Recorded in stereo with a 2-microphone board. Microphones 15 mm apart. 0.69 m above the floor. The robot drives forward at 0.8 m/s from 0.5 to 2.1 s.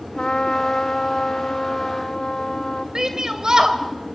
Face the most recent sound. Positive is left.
turn(degrees=-55)  # may be behind; listen again after turning